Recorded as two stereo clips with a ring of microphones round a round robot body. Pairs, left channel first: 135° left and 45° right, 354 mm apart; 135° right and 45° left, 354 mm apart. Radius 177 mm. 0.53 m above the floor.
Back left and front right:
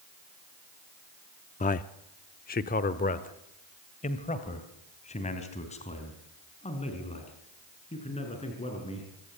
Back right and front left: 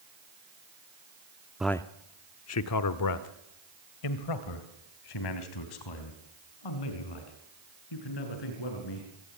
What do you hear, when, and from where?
1.6 s a man speaking: 130° left, 0.7 m; by 9.4 s 150° right, 6.5 m